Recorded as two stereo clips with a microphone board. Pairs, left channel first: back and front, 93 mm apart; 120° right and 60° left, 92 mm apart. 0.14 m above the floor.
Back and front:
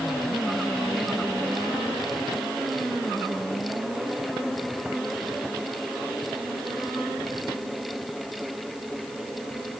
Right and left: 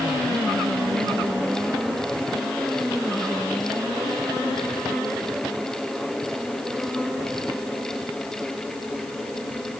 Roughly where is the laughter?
I don't hear laughter.